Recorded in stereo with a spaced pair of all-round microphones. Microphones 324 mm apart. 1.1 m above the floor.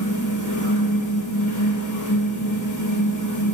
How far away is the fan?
About 1.9 m.